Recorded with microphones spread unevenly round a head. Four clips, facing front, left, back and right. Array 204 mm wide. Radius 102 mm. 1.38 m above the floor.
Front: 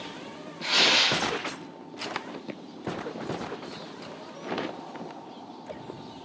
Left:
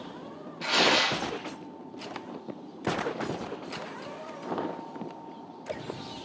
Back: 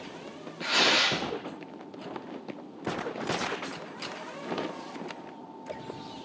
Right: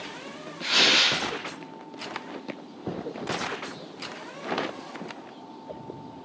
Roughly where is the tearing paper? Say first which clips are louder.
Left 1 dB, even; left.